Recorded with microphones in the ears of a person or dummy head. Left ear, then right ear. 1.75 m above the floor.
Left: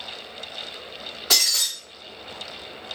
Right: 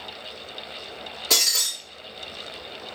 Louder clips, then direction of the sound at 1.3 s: Left 1 dB; 25° left (ahead or behind).